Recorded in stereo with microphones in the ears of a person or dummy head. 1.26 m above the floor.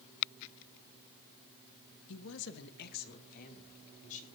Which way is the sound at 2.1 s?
70° left (ahead or behind).